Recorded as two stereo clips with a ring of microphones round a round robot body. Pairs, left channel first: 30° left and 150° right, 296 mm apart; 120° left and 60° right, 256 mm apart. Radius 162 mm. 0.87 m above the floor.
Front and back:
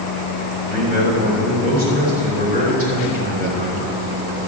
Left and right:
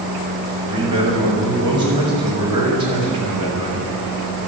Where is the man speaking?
85° right, 5 m.